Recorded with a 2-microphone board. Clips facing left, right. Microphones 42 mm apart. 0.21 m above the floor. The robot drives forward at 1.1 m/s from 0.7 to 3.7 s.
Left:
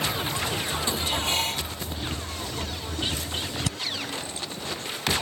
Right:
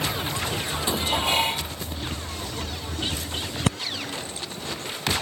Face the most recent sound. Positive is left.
turn(degrees=-40)  # may be behind; listen again after turning